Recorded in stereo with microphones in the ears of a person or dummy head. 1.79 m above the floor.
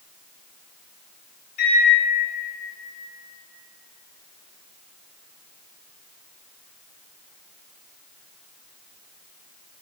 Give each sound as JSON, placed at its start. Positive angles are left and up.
{"t": 1.6, "sound": "a microwave", "side_deg": 50, "distance_m": 0.7}